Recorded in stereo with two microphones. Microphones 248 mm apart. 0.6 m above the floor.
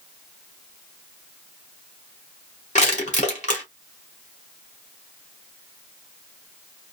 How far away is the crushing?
About 1.8 m.